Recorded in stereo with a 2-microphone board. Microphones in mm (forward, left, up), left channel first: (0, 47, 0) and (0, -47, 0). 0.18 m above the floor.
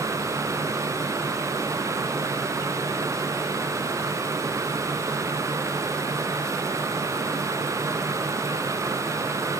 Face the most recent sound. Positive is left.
No sound to turn to.